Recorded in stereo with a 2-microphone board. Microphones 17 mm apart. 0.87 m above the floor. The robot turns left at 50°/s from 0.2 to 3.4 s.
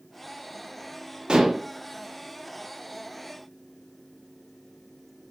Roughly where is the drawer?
I don't hear a drawer.